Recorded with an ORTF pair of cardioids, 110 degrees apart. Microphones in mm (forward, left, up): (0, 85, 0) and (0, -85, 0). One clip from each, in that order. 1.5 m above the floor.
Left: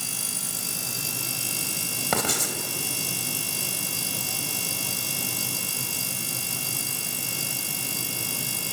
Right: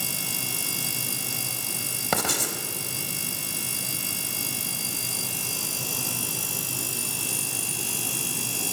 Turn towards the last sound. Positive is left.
turn(degrees=0)